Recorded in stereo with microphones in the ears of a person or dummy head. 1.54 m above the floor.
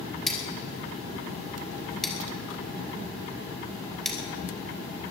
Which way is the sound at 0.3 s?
Centre (ahead or behind).